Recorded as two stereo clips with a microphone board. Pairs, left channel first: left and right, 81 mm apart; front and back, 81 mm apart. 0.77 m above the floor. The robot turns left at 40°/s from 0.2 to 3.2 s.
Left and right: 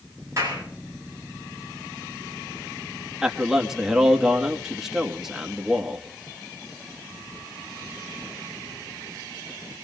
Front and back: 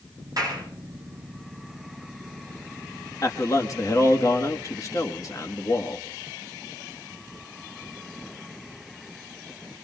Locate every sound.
0.4 s a clap: 140° right, 8.5 m; by 0.6 s 155° right, 8.5 m
3.2 s a man speaking: 10° right, 1.5 m